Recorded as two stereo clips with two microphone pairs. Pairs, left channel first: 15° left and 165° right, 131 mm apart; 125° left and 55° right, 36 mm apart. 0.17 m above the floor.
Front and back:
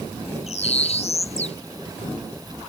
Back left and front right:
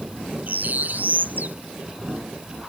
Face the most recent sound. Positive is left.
turn(degrees=-20)